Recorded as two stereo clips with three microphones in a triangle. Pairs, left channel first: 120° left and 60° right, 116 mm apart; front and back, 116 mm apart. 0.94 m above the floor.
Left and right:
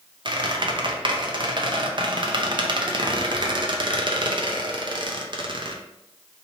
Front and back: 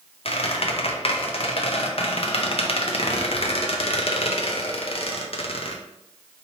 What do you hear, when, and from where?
0.2 s a squeak: 20° right, 0.6 m